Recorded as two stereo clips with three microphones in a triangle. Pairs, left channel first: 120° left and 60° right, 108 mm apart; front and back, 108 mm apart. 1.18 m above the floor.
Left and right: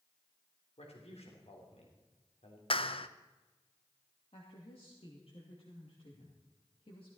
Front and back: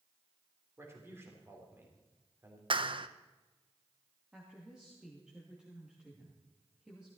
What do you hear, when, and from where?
0.8 s a man speaking: 115° left, 3.5 m
2.7 s a clap: 145° left, 0.6 m
4.3 s a woman speaking: 100° left, 2.5 m